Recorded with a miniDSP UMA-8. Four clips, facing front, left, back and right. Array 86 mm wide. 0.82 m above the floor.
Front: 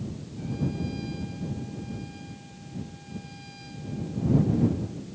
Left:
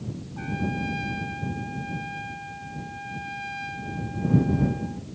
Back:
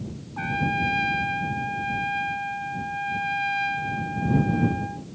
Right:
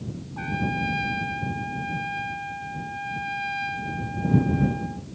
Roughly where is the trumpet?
Behind.